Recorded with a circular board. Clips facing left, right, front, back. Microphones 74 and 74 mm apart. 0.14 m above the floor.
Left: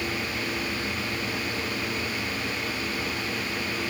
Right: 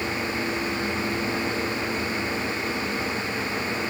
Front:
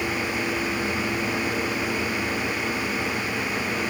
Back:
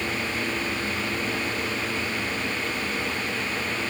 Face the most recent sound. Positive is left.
No sound to turn to.